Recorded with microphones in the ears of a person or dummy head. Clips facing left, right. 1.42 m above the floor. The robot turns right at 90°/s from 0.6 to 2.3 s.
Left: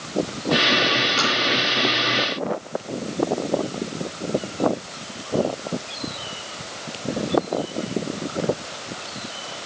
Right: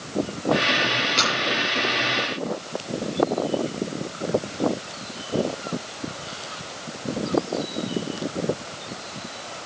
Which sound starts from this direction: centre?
Tapping, at 1.2 s.